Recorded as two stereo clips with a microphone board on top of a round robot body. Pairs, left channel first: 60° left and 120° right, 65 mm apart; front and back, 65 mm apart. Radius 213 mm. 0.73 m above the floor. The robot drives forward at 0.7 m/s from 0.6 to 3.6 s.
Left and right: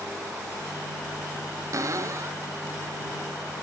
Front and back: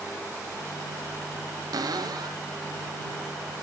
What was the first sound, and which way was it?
A cupboard door, 155° right.